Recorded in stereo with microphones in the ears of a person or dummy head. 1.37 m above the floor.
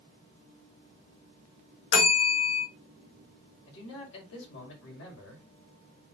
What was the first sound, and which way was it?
A bell, 55° left (ahead or behind).